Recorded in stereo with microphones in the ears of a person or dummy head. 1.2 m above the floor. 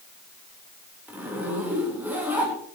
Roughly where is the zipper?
Centre.